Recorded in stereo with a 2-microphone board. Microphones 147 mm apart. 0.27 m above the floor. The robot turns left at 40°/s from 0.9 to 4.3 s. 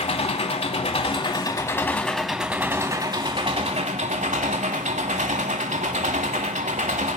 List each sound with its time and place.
0.0 s an engine running: 55° left, 0.8 m; by 7.2 s 80° right, 0.8 m